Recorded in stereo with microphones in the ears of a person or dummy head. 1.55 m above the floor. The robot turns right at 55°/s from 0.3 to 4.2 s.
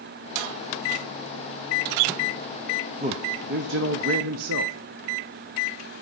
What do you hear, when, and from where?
3.0 s a man speaking: 145° right, 1.0 m; by 4.8 s 80° right, 1.0 m